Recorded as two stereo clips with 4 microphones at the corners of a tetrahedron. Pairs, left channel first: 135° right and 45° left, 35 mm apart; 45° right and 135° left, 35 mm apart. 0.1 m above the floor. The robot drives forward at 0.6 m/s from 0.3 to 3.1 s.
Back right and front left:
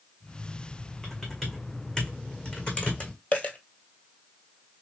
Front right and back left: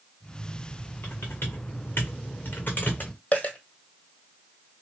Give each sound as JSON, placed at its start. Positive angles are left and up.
{"t": 1.0, "sound": "typing on a keyboard", "azimuth_deg": -50, "distance_m": 1.9}
{"t": 3.3, "sound": "a dropped coin", "azimuth_deg": -95, "distance_m": 0.8}